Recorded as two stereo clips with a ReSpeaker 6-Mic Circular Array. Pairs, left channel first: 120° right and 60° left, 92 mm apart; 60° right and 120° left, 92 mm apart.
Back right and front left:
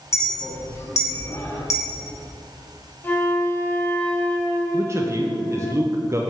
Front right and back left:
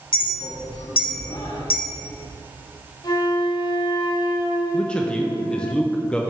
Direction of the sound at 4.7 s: 15° left.